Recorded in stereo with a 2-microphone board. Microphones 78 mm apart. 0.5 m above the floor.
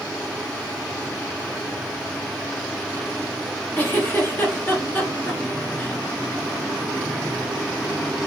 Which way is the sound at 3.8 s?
25° left (ahead or behind).